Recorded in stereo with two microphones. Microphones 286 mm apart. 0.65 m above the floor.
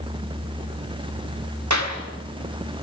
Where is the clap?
75° right (ahead or behind), 3 m.